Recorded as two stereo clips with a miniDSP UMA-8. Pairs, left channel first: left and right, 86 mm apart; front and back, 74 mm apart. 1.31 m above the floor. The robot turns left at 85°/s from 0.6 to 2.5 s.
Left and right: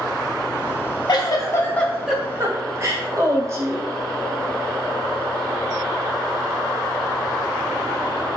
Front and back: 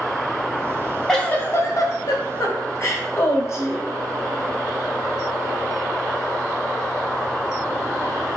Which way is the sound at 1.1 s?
80° left.